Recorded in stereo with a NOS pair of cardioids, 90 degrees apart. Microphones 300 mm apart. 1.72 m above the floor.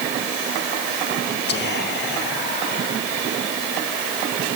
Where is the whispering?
35° left, 2 m.